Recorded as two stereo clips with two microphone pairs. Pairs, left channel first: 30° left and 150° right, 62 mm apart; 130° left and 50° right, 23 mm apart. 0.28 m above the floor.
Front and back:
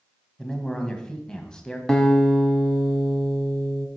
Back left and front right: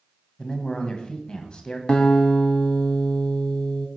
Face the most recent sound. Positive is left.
turn(degrees=105)